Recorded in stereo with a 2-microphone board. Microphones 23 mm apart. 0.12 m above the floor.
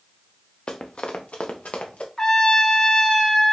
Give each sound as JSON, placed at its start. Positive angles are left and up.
{"t": 0.7, "sound": "running footsteps", "side_deg": 45, "distance_m": 0.9}
{"t": 2.2, "sound": "a trumpet", "side_deg": 25, "distance_m": 0.8}